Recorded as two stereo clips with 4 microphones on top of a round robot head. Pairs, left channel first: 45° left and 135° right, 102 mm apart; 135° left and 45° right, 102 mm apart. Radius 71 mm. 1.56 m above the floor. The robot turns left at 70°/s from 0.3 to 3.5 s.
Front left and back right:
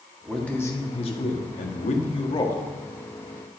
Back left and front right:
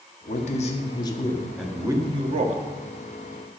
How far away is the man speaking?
About 1.5 m.